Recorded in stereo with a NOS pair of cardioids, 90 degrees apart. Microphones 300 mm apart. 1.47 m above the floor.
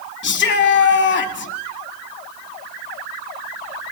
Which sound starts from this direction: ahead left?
A shout, at 0.2 s.